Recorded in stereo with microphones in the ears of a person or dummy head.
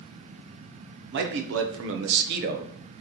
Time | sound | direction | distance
1.1 | a man speaking | 50° right (ahead or behind) | 0.8 m